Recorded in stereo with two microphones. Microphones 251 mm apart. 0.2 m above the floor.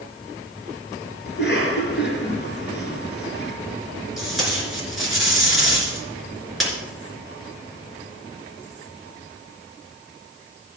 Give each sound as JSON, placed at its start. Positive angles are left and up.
{"t": 1.3, "sound": "a cough", "side_deg": 45, "distance_m": 3.0}
{"t": 4.2, "sound": "tape being pulled", "side_deg": 0, "distance_m": 3.5}